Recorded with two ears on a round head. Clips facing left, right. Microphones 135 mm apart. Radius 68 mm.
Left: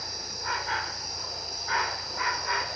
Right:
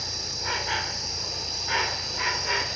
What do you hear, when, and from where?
0.0 s an insect: 25° right (ahead or behind), 0.8 m